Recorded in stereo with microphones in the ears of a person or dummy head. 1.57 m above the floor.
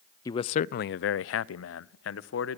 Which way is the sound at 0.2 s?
20° left (ahead or behind).